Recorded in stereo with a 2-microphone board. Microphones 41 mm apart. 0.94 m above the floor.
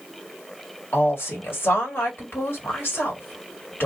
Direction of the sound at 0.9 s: 60° left (ahead or behind).